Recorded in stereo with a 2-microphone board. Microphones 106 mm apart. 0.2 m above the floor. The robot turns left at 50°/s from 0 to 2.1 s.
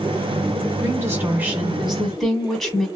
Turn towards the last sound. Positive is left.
turn(degrees=175)